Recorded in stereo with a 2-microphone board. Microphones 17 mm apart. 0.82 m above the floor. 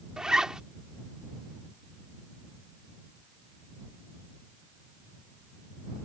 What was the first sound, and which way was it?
A zipper, 50° right (ahead or behind).